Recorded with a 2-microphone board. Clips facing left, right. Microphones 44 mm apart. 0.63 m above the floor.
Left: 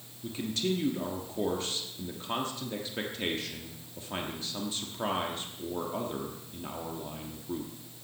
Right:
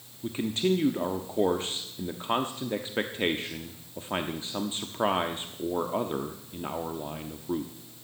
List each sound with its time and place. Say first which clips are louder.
0.2 s a man speaking: right 5 dB; 30° right (ahead or behind), 1.1 m